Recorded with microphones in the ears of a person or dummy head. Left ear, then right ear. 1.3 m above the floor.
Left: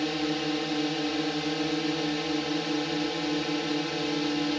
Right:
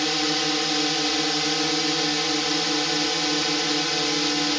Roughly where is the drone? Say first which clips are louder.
Right 6 dB; right.